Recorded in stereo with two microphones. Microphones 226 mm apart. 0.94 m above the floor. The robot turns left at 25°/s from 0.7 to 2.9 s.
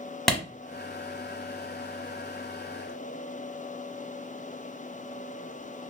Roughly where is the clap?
Centre.